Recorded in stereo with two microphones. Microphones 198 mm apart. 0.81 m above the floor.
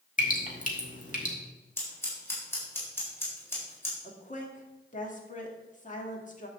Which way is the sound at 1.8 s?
10° left (ahead or behind).